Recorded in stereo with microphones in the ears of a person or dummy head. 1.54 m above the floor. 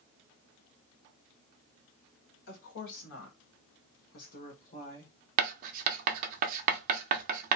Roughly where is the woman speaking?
Left.